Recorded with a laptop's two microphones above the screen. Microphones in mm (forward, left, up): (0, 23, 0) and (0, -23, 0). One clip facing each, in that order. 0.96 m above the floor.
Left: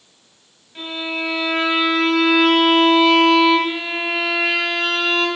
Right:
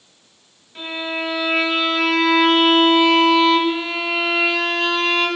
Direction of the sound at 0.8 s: Centre (ahead or behind).